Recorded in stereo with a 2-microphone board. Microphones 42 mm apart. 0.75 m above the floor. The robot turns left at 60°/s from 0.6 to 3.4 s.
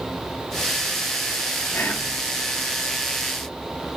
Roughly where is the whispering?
Left.